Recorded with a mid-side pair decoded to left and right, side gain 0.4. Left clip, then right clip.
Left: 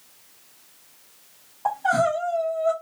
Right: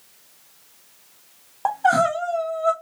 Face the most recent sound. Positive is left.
turn(degrees=-70)